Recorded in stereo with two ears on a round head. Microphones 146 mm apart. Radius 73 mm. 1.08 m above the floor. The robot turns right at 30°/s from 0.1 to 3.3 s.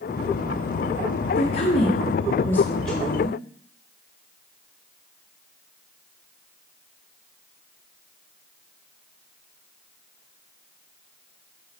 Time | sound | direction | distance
1.4 | a woman speaking | 110° left | 1.8 m